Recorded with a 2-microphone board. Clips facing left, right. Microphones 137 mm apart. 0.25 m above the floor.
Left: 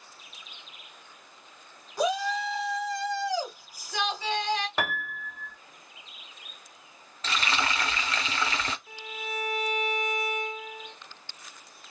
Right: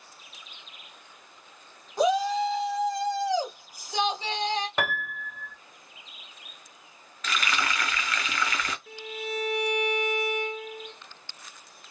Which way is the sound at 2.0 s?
20° right (ahead or behind).